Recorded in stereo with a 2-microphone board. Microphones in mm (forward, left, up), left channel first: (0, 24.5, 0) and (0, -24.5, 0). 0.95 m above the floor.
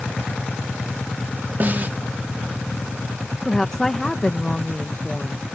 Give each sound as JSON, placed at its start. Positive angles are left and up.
{"t": 1.6, "sound": "a snare drum", "side_deg": -40}
{"t": 3.5, "sound": "a woman speaking", "side_deg": 10}